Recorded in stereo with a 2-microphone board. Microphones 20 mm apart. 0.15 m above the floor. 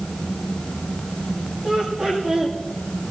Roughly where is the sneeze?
I don't hear a sneeze.